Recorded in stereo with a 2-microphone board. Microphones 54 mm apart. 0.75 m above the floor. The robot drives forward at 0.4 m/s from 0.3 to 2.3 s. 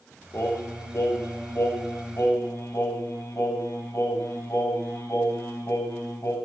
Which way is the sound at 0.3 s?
65° left (ahead or behind).